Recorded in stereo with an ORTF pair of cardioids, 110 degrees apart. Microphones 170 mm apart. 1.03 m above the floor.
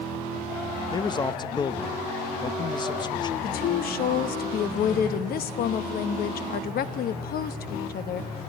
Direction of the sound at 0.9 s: 25° left.